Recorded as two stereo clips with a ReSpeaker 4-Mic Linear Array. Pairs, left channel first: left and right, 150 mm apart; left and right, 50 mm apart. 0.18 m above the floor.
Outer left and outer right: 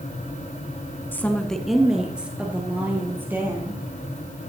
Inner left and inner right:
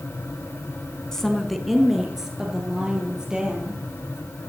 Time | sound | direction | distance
1.1 | a woman speaking | 15° left (ahead or behind) | 1.3 m